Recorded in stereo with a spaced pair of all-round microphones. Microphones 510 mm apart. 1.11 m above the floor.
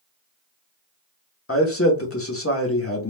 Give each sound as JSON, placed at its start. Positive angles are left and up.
{"t": 1.5, "sound": "a man speaking", "side_deg": 25, "distance_m": 0.7}